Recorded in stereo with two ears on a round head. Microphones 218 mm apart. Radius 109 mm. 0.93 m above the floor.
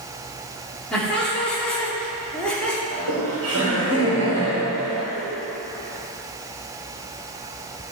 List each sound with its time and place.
0.9 s laughter: 5° left (ahead or behind), 2.5 m
2.9 s laughter: 60° right (ahead or behind), 3.5 m